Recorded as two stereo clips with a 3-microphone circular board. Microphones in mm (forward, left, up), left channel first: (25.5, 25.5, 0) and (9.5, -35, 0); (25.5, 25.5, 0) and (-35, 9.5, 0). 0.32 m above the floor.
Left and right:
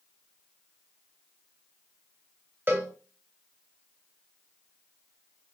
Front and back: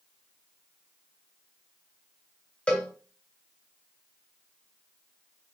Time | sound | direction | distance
2.7 | a cowbell | 55° right | 0.7 m